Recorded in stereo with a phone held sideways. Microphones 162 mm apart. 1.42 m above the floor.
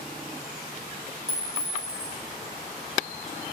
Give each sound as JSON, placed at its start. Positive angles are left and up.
{"t": 1.3, "sound": "a clink", "side_deg": -40, "distance_m": 1.0}